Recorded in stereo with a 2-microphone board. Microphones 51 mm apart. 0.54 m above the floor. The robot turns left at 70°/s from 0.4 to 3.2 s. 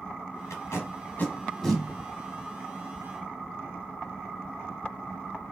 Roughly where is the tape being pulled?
Left.